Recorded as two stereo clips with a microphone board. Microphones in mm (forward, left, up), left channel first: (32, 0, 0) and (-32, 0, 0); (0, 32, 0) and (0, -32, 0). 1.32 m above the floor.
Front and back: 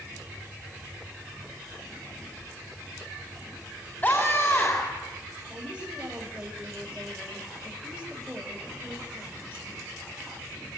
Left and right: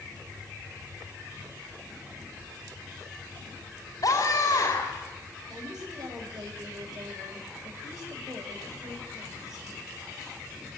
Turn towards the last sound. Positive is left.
turn(degrees=-105)